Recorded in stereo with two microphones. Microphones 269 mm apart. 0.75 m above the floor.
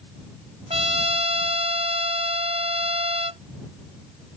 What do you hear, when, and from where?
0.7 s a trumpet: 20° right (ahead or behind)